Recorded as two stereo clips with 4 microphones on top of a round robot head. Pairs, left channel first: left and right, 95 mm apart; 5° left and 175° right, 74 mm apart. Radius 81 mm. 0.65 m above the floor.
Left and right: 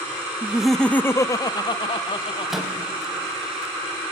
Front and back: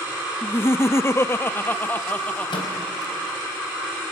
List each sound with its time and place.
0.4 s laughter: 30° right, 0.5 m; by 2.5 s 75° left, 1.1 m
2.5 s a microwave: 5° right, 4 m